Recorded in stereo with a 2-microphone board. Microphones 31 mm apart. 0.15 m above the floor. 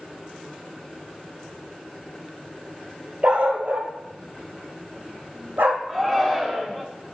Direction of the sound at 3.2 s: 40° right (ahead or behind).